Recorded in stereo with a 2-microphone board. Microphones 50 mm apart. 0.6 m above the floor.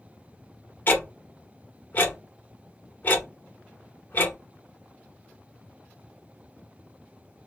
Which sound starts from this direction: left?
Ticking, at 0.9 s.